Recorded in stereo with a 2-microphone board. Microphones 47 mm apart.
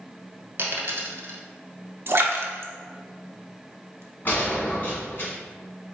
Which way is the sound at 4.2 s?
45° left (ahead or behind).